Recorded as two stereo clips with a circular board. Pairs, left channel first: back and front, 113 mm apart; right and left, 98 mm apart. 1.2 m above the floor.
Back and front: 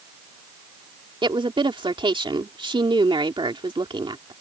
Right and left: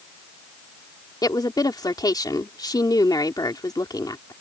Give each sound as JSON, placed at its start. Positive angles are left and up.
{"t": 1.2, "sound": "a woman speaking", "azimuth_deg": -45}